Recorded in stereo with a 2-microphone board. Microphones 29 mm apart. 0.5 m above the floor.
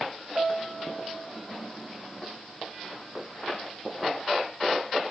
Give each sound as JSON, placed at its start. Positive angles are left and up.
{"t": 0.3, "sound": "a piano", "side_deg": -35, "distance_m": 0.9}